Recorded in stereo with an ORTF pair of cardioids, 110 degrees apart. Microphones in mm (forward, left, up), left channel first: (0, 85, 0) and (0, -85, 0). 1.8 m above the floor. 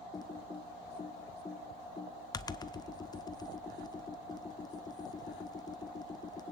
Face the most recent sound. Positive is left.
turn(degrees=20)